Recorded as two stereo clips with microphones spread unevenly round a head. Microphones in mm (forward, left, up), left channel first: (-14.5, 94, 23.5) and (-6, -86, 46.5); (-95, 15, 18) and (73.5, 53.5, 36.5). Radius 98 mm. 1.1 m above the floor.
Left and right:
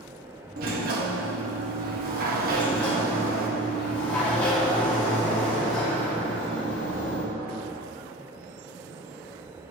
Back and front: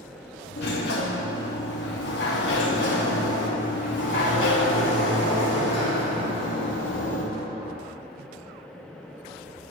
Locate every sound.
0.6 s a sliding door: 125° right, 0.8 m
2.5 s a sliding door: straight behind, 1.4 m